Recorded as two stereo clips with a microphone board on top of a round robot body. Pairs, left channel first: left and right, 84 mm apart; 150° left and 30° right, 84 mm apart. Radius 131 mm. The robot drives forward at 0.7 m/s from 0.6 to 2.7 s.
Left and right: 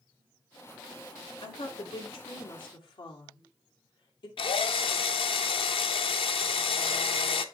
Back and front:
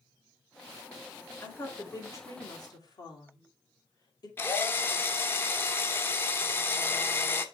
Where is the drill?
85° left, 0.8 m.